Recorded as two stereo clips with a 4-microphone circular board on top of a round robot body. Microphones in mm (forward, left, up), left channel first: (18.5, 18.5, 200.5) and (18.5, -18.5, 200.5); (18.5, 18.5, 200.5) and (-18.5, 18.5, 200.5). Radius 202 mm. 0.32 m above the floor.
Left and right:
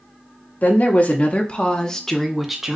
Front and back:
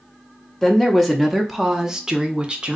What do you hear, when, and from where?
0.6 s a woman speaking: 85° left, 1.4 m; by 2.8 s 150° right, 1.1 m